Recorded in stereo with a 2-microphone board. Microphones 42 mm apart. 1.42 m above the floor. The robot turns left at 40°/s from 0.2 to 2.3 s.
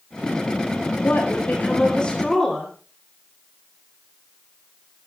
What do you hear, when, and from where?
1.0 s a woman speaking: 60° left, 4 m; by 2.7 s 10° left, 4 m